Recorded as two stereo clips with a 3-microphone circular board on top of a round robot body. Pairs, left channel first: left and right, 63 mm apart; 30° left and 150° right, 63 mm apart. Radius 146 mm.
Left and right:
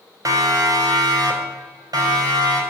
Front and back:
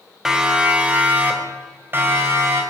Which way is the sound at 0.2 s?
70° right.